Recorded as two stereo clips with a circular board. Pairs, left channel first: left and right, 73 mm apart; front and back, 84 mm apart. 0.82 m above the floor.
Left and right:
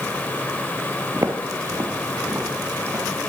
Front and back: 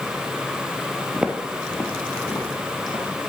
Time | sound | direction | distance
1.1 | footsteps | 115° right | 1.0 m